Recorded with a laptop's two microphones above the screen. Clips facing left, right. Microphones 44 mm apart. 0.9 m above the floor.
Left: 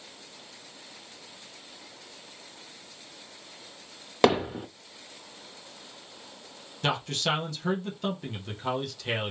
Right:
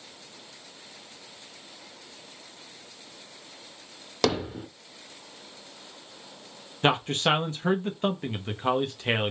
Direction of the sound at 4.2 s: 20° left (ahead or behind).